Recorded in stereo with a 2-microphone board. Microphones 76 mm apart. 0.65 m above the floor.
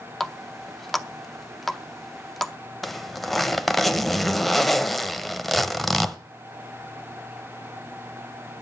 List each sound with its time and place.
0.2 s a running tap: 5° left (ahead or behind), 0.6 m
2.8 s a zipper: centre (ahead or behind), 0.8 m